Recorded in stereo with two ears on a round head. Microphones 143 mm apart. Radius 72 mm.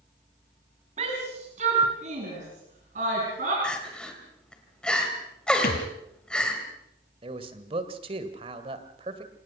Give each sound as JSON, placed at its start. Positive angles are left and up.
{"t": 1.0, "sound": "a shout", "side_deg": -40, "distance_m": 3.5}
{"t": 3.6, "sound": "crying", "side_deg": 5, "distance_m": 3.0}
{"t": 5.6, "sound": "a thud", "side_deg": 65, "distance_m": 3.0}
{"t": 7.2, "sound": "a man speaking", "side_deg": -35, "distance_m": 1.9}